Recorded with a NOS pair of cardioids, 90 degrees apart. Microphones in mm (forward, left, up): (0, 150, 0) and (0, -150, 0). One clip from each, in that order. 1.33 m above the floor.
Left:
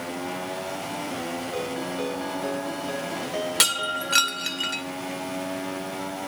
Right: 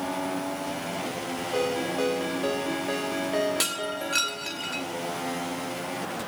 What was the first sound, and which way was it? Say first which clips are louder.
A ringtone: right 6 dB; 15° right.